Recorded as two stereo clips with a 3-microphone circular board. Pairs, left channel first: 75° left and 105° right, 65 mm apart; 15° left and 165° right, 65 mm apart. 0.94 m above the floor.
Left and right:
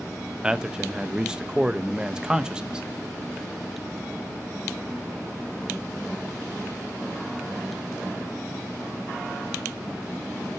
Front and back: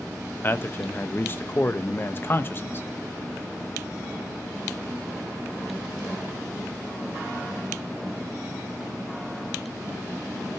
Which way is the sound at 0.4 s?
30° right.